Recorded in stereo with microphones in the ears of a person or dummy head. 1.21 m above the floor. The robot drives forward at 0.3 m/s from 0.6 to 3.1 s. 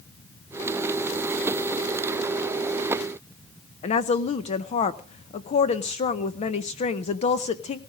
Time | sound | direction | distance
3.8 | a woman speaking | 35° left (ahead or behind) | 0.6 m